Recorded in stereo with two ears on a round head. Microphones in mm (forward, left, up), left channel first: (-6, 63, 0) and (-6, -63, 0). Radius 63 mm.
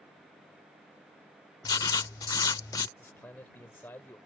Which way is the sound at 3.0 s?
15° left (ahead or behind).